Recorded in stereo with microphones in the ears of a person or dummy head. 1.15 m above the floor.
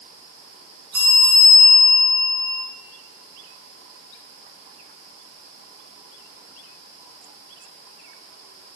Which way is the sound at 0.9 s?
10° right (ahead or behind).